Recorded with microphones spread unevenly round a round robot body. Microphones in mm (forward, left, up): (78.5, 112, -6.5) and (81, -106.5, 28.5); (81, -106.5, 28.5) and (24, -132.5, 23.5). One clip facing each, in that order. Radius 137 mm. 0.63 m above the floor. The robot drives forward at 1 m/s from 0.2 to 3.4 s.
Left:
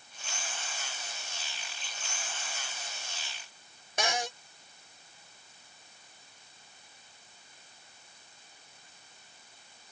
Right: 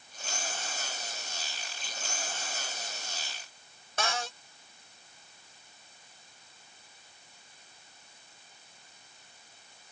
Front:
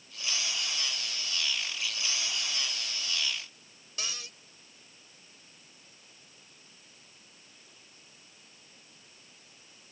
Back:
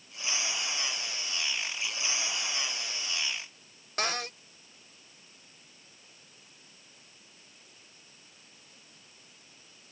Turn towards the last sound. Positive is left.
turn(degrees=165)